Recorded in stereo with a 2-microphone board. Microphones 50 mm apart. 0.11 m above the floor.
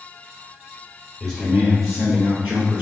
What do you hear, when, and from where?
1.2 s a man speaking: centre (ahead or behind), 2.0 m; by 2.8 s 20° right (ahead or behind), 1.5 m